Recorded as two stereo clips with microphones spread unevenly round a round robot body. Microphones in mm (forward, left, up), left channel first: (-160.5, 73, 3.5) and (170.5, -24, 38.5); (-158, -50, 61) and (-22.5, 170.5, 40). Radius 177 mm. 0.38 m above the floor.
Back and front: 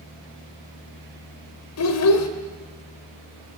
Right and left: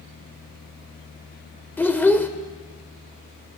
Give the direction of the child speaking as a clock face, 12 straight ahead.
7 o'clock.